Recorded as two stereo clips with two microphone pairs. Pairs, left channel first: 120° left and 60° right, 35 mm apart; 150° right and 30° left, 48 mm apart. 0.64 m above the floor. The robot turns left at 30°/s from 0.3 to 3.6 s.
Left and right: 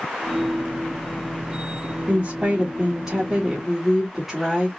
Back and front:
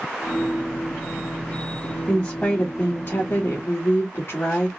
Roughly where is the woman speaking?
Right.